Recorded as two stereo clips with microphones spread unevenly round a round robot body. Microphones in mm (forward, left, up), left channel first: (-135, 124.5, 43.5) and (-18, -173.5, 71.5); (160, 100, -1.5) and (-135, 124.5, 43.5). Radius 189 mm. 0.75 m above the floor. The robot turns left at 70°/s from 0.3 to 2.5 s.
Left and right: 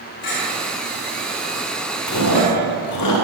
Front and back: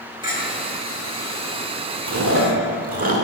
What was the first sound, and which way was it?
A clink, 100° left.